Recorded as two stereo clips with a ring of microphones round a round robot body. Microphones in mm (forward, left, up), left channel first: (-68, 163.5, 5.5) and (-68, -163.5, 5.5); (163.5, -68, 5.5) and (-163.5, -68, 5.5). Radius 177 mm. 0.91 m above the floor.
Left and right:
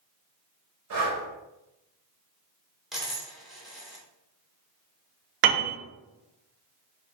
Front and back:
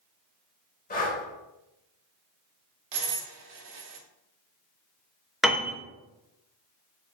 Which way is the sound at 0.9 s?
60° right.